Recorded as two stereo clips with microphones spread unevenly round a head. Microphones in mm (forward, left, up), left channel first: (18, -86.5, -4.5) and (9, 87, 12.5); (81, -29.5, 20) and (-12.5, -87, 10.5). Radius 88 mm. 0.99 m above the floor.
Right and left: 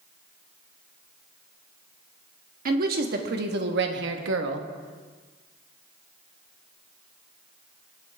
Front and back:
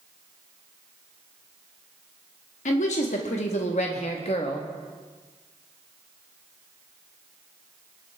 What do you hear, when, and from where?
2.6 s a woman speaking: 55° left, 1.8 m; by 4.7 s 90° left, 1.3 m